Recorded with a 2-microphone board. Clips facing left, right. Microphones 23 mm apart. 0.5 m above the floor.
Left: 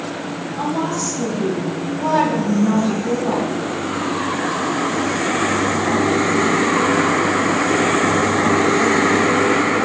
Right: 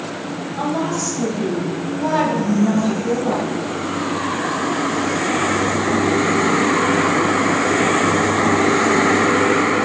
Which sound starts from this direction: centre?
A woman speaking, at 0.6 s.